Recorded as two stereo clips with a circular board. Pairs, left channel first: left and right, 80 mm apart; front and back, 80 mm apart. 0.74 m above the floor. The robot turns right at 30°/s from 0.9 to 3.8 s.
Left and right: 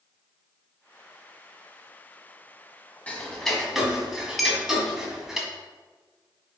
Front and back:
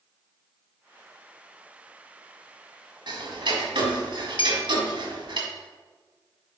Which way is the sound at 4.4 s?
Straight ahead.